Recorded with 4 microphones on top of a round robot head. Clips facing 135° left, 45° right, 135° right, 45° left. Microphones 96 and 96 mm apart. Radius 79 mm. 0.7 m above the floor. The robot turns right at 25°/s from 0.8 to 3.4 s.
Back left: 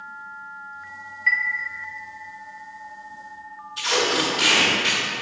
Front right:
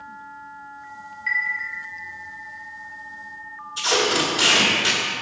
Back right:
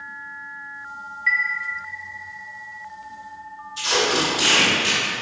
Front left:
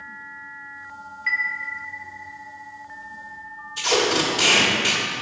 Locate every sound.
1.3 s a chime: 90° left, 0.5 m; by 1.4 s 95° left, 0.5 m
3.8 s tape being pulled: 10° left, 1.4 m